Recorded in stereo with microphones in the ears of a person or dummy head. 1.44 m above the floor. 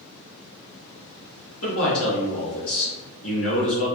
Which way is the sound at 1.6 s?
75° left (ahead or behind).